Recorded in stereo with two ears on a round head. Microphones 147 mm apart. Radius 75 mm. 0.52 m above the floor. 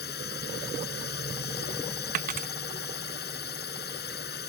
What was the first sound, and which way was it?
A drone, 70° left (ahead or behind).